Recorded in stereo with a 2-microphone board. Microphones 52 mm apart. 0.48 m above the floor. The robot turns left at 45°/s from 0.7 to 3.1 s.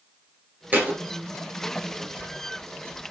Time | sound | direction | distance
0.7 | a thud | 35° right (ahead or behind) | 1.9 m